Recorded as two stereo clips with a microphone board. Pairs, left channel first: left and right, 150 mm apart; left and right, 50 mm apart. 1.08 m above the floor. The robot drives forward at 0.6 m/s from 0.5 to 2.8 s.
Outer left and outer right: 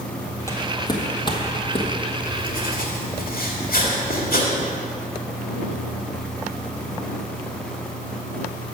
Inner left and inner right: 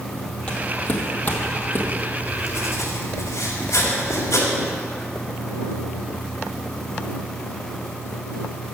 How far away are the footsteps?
About 1.2 m.